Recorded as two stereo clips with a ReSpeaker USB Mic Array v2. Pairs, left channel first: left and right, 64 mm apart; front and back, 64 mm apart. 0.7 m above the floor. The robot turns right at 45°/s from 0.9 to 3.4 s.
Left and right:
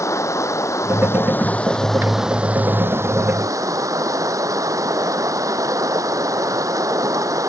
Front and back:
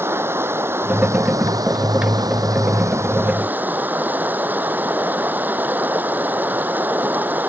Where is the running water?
130° left; by 7.5 s 120° right.